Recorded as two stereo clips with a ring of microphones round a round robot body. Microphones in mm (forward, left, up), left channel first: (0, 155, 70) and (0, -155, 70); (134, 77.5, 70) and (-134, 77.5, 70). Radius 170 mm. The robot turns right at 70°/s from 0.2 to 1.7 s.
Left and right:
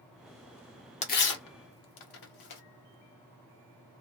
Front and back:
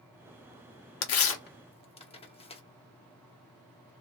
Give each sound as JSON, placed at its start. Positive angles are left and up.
{"t": 1.0, "sound": "tearing paper", "azimuth_deg": 20, "distance_m": 1.0}